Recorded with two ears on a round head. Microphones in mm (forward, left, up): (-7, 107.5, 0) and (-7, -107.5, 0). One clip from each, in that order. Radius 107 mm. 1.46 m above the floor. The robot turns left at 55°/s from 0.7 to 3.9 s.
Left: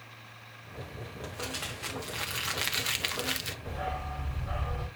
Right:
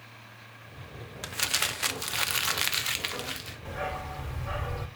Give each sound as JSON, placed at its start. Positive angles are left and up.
{"t": 1.2, "sound": "crumpling", "azimuth_deg": -85, "distance_m": 0.8}
{"t": 3.6, "sound": "a dog barking", "side_deg": -65, "distance_m": 3.0}